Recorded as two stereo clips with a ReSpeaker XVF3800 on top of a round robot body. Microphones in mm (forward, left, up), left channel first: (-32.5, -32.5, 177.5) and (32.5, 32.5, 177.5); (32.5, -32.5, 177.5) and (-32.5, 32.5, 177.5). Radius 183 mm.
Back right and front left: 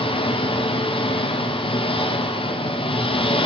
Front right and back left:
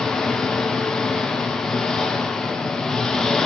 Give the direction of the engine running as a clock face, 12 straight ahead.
4 o'clock.